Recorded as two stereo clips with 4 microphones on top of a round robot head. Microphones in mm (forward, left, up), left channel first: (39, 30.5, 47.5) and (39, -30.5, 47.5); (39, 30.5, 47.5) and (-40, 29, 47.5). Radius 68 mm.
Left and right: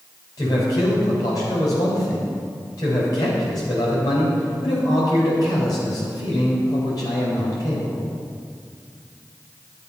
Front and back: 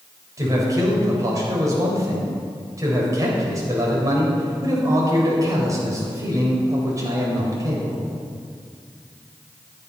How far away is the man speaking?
About 4.5 m.